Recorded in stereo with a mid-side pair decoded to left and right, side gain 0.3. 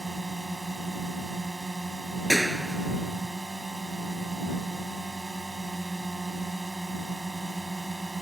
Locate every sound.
0.0 s a drone: 20° right
2.3 s a clap: 5° right